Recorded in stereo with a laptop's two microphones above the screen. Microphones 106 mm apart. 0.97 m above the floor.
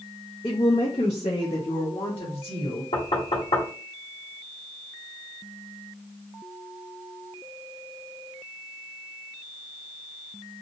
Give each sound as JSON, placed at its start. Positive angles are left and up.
{"t": 0.4, "sound": "a woman speaking", "side_deg": 50, "distance_m": 0.6}
{"t": 2.9, "sound": "knocking", "side_deg": 75, "distance_m": 1.2}